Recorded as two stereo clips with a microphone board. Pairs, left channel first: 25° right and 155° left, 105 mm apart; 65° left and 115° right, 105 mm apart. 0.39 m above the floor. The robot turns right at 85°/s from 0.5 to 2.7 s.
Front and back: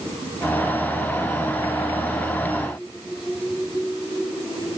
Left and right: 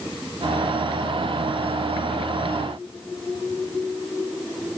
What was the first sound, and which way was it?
Only background noise.